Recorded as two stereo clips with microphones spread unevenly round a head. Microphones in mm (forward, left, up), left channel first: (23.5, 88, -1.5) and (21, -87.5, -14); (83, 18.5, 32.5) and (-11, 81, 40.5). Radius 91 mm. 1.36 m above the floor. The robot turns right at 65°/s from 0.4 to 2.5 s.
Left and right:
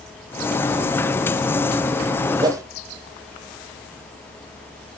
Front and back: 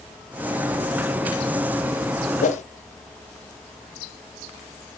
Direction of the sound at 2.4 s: 25° right.